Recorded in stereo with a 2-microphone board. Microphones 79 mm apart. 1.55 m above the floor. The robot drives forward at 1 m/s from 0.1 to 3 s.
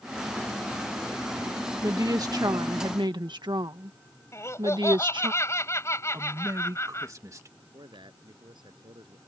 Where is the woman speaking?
45° right (ahead or behind); by 5.3 s 70° right (ahead or behind).